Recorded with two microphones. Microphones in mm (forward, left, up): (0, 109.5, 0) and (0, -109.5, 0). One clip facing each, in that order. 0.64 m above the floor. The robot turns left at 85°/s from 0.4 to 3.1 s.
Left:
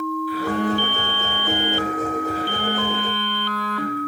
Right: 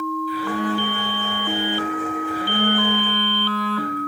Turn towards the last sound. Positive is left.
turn(degrees=-125)